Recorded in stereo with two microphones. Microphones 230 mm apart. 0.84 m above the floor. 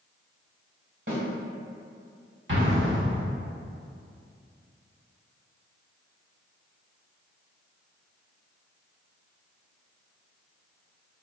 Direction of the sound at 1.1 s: 55° right (ahead or behind).